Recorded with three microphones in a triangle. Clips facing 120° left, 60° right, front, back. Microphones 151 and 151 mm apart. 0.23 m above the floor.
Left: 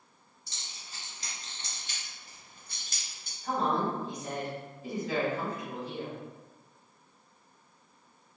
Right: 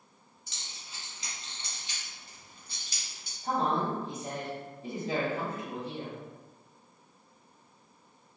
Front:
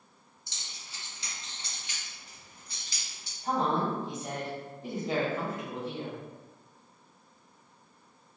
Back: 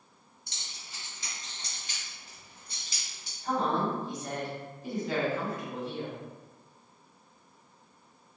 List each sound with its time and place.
0.5 s keys jangling: 170° left, 1.9 m; by 3.3 s 110° left, 1.6 m
3.4 s a woman speaking: 40° right, 1.7 m